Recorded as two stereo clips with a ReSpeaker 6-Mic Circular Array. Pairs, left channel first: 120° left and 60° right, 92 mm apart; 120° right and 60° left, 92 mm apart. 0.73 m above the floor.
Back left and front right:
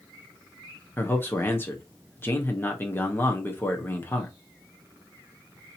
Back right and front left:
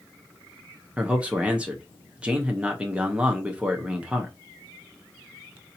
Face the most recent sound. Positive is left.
turn(degrees=115)